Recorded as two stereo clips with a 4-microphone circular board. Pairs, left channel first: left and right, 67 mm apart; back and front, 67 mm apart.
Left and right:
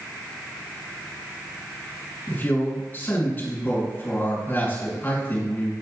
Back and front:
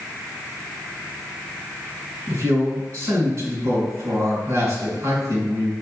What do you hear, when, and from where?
2.3 s a man speaking: 35° left, 3 m